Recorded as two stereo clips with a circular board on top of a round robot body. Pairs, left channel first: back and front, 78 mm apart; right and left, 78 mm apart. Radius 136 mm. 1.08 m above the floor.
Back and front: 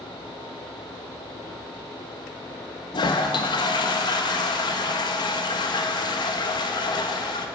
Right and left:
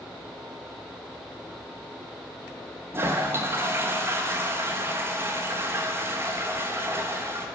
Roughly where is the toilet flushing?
Behind left.